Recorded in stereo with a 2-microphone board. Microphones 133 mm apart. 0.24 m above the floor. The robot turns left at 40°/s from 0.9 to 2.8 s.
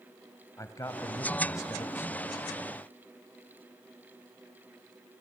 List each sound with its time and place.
0.6 s a man speaking: 25° left (ahead or behind), 1.2 m; by 2.4 s 15° left (ahead or behind), 1.2 m